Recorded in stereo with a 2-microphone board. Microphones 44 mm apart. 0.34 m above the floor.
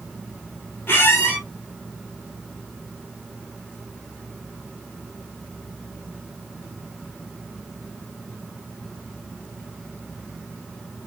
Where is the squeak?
60° left (ahead or behind), 1.0 m.